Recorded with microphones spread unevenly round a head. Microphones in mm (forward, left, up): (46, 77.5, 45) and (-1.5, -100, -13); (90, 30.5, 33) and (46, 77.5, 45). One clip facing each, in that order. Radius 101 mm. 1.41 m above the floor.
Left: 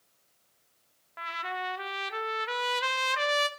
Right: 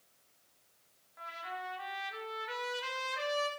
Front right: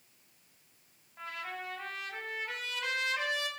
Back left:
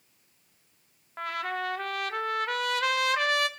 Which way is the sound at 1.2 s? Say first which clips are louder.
Left 7 dB, back left 9 dB; 105° left.